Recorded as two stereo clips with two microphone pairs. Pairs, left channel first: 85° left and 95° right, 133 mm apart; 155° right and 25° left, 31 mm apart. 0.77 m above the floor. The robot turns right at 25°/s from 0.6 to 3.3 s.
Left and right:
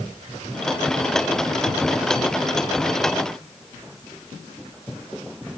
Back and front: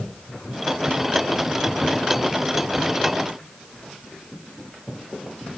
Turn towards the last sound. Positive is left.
No sound to turn to.